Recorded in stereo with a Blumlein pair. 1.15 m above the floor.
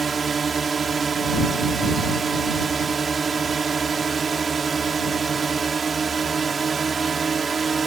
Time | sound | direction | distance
0.0 | a drone | 15° right | ?